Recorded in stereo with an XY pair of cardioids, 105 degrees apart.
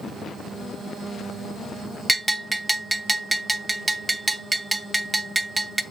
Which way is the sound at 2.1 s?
15° right.